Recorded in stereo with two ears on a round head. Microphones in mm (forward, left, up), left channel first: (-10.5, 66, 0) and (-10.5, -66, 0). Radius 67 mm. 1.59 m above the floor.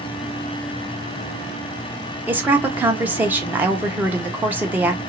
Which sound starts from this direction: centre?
A woman speaking, at 2.3 s.